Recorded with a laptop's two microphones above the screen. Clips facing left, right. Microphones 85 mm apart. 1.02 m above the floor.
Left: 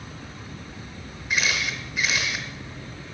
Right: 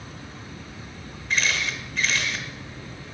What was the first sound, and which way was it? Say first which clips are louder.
A camera shutter: even; 10° left (ahead or behind).